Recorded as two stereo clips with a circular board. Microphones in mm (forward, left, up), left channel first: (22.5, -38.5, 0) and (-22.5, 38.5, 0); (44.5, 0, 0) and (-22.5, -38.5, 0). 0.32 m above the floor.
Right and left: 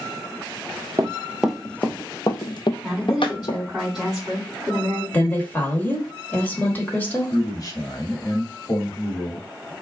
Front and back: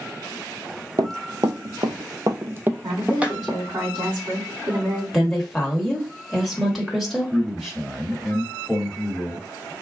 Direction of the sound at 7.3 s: 65° right.